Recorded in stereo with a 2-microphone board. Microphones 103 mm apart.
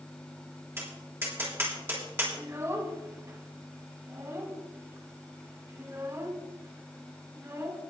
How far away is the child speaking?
About 2.5 m.